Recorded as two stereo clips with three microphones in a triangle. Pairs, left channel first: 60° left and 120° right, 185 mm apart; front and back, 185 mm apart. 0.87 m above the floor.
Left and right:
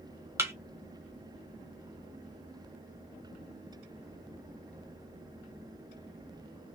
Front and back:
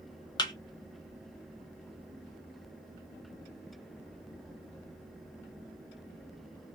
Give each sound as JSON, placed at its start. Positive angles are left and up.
{"t": 0.4, "sound": "a thud", "azimuth_deg": -50, "distance_m": 0.8}